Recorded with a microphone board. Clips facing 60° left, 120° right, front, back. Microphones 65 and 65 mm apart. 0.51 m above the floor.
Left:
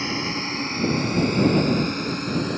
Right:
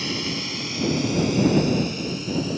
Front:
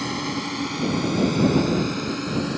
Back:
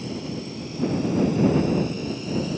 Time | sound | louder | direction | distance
0.0 | a drone | left 2 dB, front 4 dB | straight ahead | ?